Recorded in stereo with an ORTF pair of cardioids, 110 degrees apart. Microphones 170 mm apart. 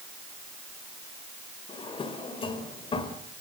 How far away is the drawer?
About 2.5 m.